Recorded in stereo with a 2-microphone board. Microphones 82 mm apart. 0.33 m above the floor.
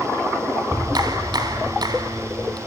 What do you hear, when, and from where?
0.7 s a clap: 60° right (ahead or behind), 1.9 m